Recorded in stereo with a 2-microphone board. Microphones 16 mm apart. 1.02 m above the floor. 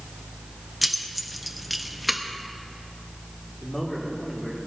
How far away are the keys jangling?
About 0.9 m.